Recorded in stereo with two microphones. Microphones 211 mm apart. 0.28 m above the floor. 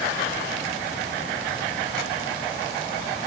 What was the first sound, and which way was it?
Only background noise.